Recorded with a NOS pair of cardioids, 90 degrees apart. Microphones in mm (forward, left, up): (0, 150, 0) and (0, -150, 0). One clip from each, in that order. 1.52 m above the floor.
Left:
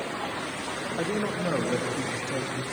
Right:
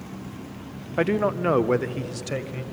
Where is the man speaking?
60° right, 0.8 m; by 2.6 s 65° right, 1.7 m.